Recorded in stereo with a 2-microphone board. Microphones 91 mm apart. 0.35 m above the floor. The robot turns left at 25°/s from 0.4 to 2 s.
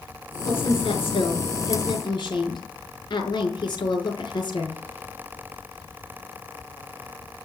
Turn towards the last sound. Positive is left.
turn(degrees=55)